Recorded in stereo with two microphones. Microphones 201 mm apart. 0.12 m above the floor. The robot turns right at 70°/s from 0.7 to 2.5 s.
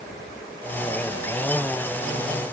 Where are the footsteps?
I don't hear footsteps.